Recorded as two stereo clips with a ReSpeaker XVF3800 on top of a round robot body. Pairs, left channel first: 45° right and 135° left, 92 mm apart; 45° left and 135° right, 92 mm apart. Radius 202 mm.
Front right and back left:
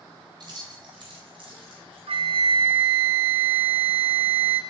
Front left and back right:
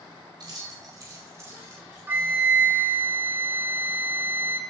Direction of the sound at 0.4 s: 175° left.